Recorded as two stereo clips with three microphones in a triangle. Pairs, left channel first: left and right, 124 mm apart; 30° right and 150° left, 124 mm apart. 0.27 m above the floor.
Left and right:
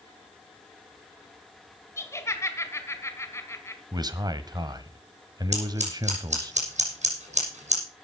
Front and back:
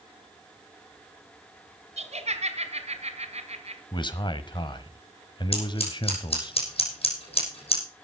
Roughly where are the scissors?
Right.